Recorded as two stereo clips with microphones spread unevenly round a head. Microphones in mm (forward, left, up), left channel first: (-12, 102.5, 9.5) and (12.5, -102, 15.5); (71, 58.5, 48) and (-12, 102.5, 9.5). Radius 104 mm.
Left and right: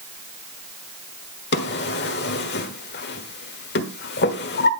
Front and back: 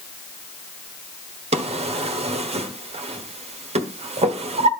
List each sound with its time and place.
1.5 s a drawer: 135° left, 1.4 m